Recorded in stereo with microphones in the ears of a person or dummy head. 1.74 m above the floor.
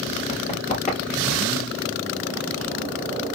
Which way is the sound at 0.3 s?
35° left (ahead or behind).